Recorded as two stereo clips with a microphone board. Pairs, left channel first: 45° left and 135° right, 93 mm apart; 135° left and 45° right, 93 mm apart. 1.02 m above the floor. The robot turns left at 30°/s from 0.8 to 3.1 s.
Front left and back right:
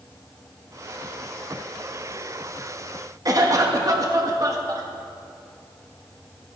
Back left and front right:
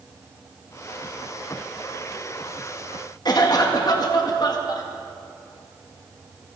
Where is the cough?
175° left, 1.3 m.